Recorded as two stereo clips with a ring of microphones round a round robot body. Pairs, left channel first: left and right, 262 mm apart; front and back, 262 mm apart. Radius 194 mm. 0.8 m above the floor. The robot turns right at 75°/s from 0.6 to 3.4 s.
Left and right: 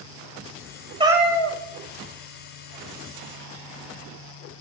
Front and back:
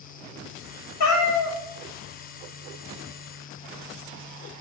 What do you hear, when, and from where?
1.0 s a cat meowing: 20° right, 0.9 m; by 1.6 s 25° left, 0.9 m